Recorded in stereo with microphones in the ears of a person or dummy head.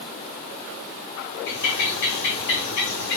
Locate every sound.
1.5 s a bird: 55° left (ahead or behind), 0.8 m